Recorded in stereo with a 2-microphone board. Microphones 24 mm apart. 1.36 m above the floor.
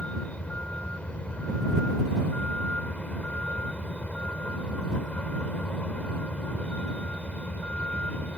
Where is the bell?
No bell in this recording.